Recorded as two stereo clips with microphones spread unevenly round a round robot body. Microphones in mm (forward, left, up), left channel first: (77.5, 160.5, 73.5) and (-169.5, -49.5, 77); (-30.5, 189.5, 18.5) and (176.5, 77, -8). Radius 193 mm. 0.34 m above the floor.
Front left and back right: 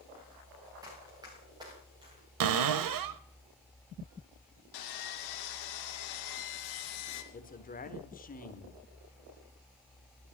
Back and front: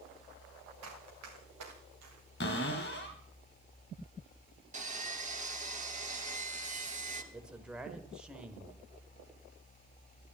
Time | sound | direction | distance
0.8 | running footsteps | 60° right | 3 m
2.4 | a cupboard door | 150° right | 0.9 m
4.7 | sawing | 30° left | 2.5 m
7.3 | a man speaking | 40° left | 1.3 m